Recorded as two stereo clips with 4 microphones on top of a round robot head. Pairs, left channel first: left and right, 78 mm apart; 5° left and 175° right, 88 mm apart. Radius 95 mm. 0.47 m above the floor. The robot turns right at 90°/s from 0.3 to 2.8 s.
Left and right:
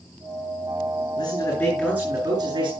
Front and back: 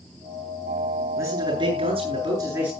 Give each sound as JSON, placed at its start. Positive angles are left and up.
{"t": 1.2, "sound": "a man speaking", "azimuth_deg": 125, "distance_m": 9.0}